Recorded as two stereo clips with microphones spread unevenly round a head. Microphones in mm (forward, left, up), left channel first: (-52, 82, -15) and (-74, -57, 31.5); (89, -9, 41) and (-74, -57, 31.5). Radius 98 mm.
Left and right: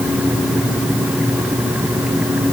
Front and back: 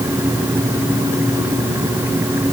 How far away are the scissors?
I don't hear scissors.